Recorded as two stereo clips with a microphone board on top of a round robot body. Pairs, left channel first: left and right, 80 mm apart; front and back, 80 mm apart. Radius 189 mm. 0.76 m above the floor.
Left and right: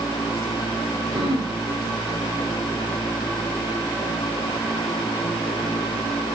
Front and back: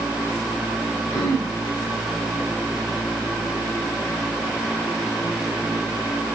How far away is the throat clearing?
About 3.5 m.